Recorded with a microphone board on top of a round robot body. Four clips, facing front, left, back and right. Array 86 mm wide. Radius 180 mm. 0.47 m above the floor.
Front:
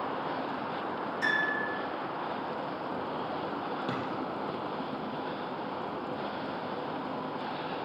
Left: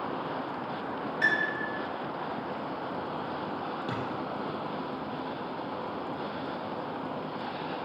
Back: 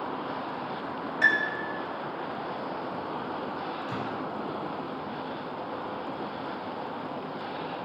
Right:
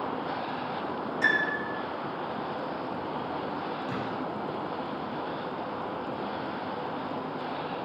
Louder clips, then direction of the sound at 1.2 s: Right 1 dB, back 5 dB; 160° left.